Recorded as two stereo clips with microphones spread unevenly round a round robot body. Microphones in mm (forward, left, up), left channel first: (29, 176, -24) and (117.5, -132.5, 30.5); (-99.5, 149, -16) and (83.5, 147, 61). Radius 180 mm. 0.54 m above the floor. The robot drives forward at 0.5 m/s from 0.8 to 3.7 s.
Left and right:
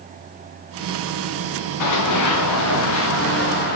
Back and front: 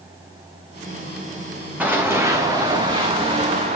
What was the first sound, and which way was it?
Running footsteps, 75° left.